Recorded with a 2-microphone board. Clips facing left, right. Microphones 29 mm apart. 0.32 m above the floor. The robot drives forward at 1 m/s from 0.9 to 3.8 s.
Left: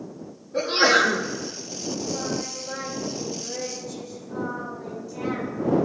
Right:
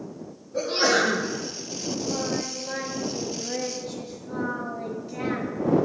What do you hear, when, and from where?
0.5 s a sneeze: 30° left (ahead or behind), 5 m
1.9 s singing: 40° right (ahead or behind), 5 m; by 5.5 s 55° right (ahead or behind), 4 m